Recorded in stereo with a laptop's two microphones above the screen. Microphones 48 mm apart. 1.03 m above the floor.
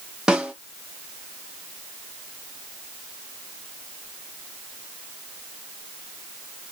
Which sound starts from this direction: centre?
A snare drum, at 0.3 s.